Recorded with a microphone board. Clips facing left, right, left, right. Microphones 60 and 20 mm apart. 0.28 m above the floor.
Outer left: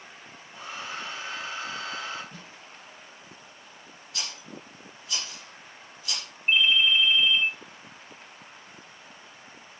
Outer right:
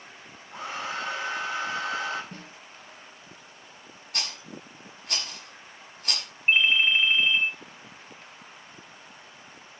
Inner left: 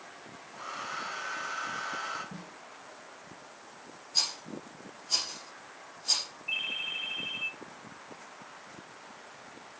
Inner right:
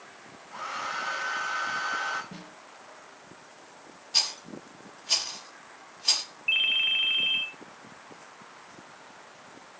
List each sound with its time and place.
0.5 s a hair dryer: 85° right, 6.5 m
2.3 s a snare drum: 50° right (ahead or behind), 3 m
4.1 s a rattle: 60° right (ahead or behind), 5 m
6.5 s a ringtone: 40° right (ahead or behind), 2.5 m